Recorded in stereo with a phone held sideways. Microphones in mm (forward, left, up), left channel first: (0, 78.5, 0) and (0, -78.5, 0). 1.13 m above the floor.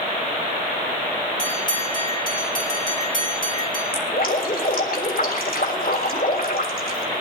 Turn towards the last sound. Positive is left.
turn(degrees=75)  # may be behind; listen again after turning